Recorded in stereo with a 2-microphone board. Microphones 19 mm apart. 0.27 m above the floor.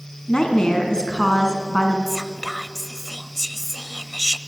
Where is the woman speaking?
40° left (ahead or behind), 3.5 m.